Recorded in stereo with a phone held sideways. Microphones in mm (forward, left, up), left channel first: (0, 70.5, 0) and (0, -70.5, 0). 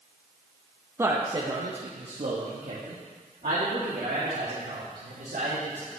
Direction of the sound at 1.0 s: 15° right (ahead or behind).